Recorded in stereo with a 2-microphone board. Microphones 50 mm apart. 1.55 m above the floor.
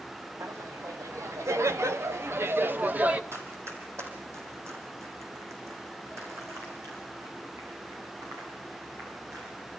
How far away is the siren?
No siren in this recording.